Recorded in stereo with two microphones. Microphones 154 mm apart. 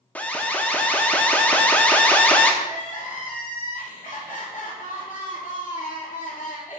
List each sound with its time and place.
0.1 s an alarm: 10° left (ahead or behind), 0.7 m
2.6 s crying: 60° left (ahead or behind), 2.5 m